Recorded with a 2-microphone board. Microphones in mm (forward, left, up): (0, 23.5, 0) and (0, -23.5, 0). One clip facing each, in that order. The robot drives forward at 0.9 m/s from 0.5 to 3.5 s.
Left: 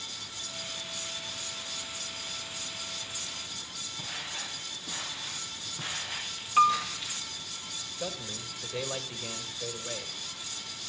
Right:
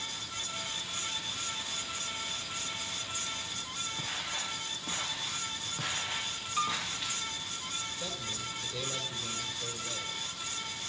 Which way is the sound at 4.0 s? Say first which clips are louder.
Even; 65° right (ahead or behind).